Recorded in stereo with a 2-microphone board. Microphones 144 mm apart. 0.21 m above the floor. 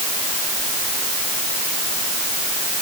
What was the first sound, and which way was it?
Only background noise.